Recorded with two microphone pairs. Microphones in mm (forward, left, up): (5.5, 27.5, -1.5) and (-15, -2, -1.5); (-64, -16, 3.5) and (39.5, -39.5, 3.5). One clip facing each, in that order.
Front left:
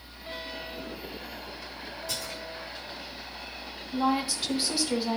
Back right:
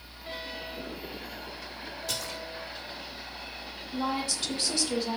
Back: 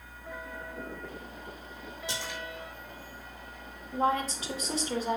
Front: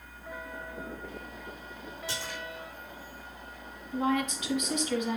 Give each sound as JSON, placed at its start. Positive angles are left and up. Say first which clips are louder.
{"t": 2.1, "sound": "a splash", "louder": "back right 1 dB, back 1 dB", "azimuth_deg": -120, "distance_m": 4.0}
{"t": 3.9, "sound": "a woman speaking", "louder": "front left 4 dB, back 1 dB", "azimuth_deg": 130, "distance_m": 1.8}